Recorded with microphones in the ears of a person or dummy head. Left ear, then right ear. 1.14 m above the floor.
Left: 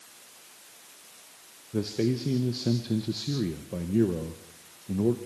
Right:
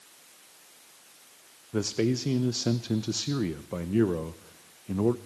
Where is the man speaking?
45° right (ahead or behind), 0.7 m.